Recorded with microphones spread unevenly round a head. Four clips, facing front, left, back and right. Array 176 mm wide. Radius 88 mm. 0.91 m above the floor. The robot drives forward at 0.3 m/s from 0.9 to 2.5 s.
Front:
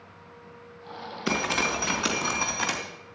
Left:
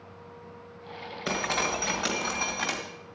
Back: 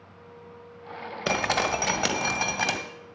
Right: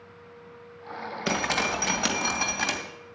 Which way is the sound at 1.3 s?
165° right.